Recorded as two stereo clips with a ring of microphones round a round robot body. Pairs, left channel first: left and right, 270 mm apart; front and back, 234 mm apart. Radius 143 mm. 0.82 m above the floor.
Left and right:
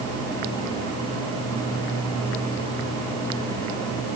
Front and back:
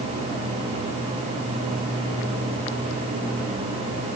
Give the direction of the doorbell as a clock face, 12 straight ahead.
No doorbell in this recording.